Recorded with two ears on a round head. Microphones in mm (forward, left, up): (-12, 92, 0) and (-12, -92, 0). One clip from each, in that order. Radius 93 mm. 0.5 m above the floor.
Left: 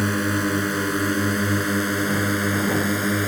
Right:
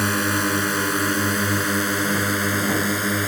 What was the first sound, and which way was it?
A drone, 40° right (ahead or behind).